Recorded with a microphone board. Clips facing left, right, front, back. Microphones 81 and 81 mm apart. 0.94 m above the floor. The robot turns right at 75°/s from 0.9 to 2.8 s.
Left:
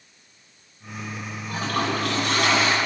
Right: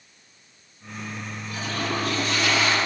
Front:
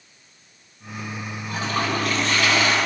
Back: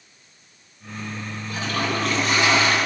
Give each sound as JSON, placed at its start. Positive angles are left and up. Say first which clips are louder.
{"t": 1.5, "sound": "a toilet flushing", "louder": "left 4 dB, front 1 dB", "azimuth_deg": 40, "distance_m": 9.0}